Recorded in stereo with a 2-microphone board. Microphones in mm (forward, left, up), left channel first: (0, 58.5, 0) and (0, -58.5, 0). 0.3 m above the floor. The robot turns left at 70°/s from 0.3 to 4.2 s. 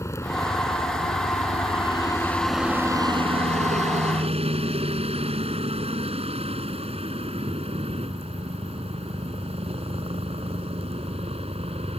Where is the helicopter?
155° left; by 12.0 s 120° right.